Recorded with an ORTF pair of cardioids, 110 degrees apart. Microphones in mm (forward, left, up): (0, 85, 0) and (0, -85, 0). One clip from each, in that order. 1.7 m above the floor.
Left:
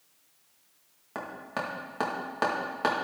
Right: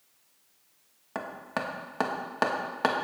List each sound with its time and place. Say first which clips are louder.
1.1 s hammering: right 1 dB; 20° right, 2.0 m